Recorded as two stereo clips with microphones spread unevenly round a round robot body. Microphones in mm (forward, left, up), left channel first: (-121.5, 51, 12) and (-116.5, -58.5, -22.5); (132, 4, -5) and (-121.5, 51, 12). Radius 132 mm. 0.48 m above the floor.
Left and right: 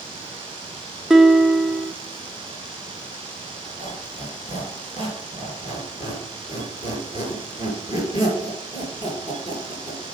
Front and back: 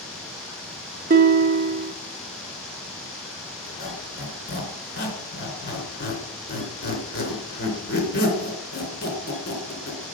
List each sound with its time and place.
1.1 s a guitar: 150° right, 0.7 m
3.7 s a squeak: 40° left, 3 m